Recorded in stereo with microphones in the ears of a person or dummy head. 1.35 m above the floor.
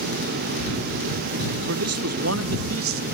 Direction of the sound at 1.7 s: 75° right (ahead or behind).